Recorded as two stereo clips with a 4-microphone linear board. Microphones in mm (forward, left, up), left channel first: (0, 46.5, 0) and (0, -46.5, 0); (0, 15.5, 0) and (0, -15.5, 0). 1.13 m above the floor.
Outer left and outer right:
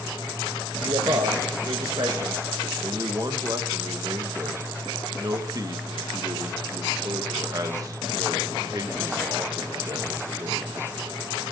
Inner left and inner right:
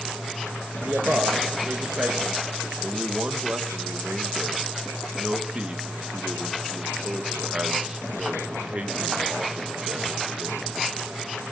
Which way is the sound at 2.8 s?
40° right (ahead or behind).